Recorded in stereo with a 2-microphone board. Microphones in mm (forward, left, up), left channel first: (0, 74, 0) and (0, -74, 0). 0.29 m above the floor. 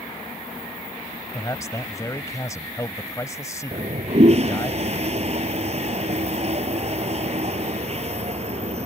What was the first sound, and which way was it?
A man speaking, 20° left (ahead or behind).